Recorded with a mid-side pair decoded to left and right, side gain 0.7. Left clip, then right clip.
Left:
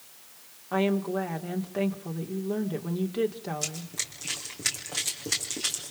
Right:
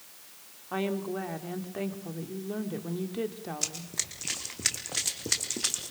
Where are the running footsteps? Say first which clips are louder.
Even; 10° right, 4.5 m.